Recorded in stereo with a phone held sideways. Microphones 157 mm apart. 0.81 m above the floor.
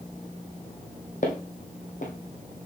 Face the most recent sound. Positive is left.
turn(degrees=55)  # may be behind; listen again after turning